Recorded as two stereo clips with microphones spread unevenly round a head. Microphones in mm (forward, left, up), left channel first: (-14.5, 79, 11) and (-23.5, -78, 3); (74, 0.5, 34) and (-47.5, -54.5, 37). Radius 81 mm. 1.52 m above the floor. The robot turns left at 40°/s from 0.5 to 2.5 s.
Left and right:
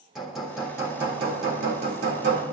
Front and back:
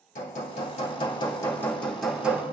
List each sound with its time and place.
0.1 s hammering: 5° right, 2.5 m; by 2.4 s 80° right, 2.5 m